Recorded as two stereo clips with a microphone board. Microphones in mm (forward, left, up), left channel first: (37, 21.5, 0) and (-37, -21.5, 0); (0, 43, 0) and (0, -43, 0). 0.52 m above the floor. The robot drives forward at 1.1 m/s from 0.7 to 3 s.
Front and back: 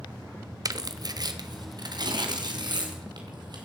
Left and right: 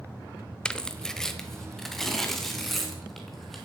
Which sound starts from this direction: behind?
Tearing paper, at 0.7 s.